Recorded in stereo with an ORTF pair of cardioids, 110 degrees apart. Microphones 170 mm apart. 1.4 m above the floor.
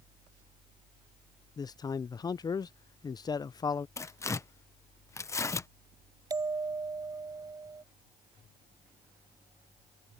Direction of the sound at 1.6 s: 25° left.